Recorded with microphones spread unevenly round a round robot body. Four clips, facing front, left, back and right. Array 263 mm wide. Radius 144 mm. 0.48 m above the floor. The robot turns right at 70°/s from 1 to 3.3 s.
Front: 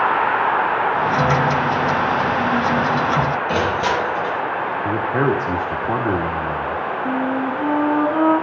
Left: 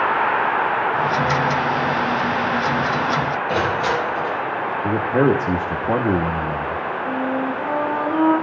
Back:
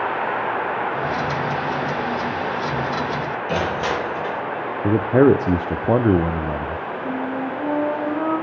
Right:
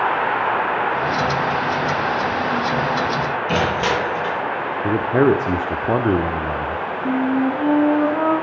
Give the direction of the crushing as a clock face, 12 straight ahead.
3 o'clock.